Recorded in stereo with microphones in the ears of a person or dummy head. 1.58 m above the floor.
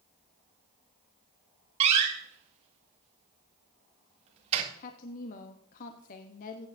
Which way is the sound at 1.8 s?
35° right (ahead or behind).